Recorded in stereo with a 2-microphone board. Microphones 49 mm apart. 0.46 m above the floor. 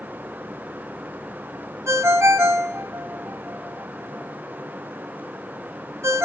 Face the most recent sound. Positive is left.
turn(degrees=-65)  # may be behind; listen again after turning